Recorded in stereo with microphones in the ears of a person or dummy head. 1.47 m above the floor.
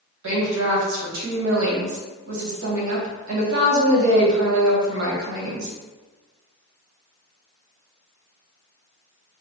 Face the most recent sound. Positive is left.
turn(degrees=-80)